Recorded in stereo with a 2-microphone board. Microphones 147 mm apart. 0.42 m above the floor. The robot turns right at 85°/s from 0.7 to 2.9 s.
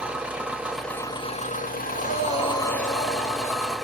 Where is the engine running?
10° right, 0.7 m; by 3.9 s straight behind, 0.7 m.